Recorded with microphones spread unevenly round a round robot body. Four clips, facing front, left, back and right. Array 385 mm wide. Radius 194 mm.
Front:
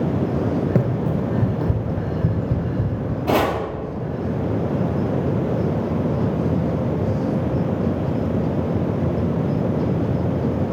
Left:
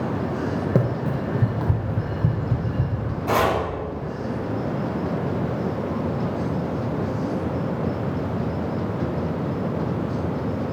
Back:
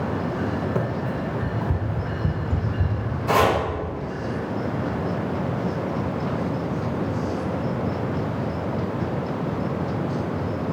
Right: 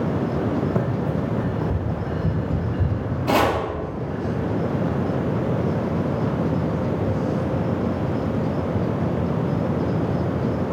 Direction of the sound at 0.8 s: 35° left.